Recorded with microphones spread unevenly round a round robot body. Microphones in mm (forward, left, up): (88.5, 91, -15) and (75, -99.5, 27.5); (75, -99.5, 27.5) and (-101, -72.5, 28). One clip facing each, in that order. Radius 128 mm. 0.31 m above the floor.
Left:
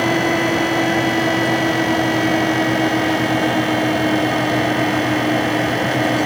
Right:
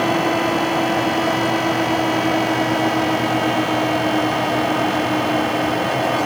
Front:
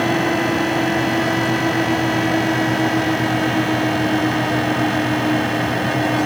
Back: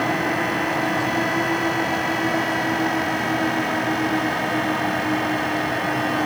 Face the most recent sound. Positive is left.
No sound to turn to.